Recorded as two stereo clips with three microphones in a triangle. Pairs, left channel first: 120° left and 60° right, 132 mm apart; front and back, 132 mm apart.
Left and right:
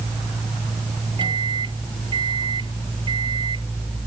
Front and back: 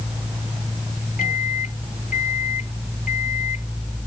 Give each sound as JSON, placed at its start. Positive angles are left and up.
{"t": 1.2, "sound": "a microwave", "azimuth_deg": -10}